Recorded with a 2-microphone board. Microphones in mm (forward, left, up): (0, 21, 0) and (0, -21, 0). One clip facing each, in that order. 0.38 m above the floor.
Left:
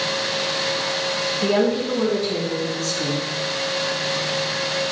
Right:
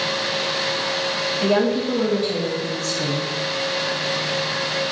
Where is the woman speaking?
45° right (ahead or behind), 2.5 m; by 3.3 s 20° right (ahead or behind), 3 m.